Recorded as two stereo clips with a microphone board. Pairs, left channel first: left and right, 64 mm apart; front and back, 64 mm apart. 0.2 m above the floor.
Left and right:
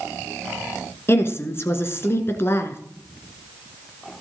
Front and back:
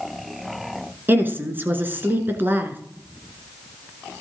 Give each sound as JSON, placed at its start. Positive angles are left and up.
{"t": 1.1, "sound": "a woman speaking", "azimuth_deg": 130, "distance_m": 2.0}